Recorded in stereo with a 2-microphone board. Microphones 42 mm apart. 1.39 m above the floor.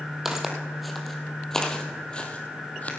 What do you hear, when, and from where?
0.2 s footsteps: 10° right (ahead or behind), 2 m; by 2.9 s 35° left (ahead or behind), 2 m